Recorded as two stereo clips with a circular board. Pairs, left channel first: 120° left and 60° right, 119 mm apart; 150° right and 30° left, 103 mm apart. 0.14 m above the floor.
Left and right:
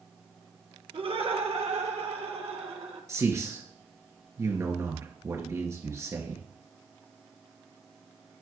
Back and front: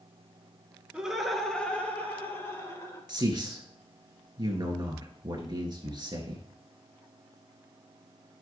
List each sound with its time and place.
0.9 s laughter: 50° right, 1.6 m; by 3.0 s 90° right, 3 m
3.1 s a man speaking: straight ahead, 2.0 m